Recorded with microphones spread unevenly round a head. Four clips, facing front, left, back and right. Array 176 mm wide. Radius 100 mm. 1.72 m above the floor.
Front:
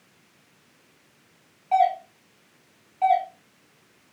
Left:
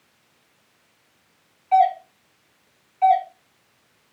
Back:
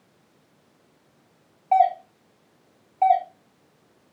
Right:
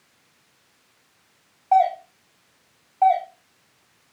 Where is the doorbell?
145° right, 1.4 m.